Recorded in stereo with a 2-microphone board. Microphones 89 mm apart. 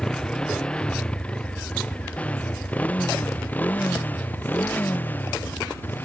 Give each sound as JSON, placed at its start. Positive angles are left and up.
{"t": 0.0, "sound": "a motorcycle", "side_deg": 5}